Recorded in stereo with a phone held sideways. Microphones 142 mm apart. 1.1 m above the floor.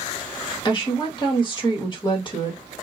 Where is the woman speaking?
30° left (ahead or behind), 1.5 m.